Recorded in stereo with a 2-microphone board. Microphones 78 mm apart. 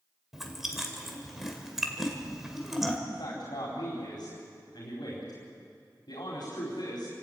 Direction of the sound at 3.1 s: 65° left (ahead or behind).